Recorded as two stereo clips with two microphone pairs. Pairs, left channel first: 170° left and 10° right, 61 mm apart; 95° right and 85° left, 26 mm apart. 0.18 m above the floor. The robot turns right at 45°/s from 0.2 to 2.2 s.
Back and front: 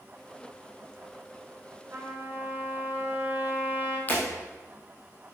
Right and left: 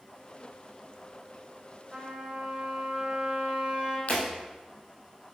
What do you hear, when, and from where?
1.9 s a trumpet: 20° left, 2.5 m; by 4.0 s 35° left, 2.5 m
4.1 s breaking glass: 130° right, 3.5 m